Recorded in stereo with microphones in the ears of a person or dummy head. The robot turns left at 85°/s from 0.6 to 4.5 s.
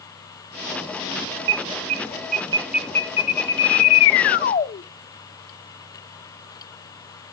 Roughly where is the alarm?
Right.